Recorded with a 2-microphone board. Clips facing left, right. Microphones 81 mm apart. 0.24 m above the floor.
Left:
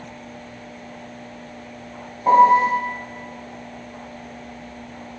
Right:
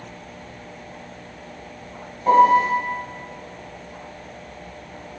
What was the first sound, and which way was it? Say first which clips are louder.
A piano: left 1 dB; 20° left (ahead or behind).